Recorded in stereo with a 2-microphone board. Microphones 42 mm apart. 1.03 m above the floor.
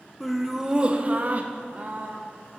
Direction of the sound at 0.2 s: 5° left (ahead or behind).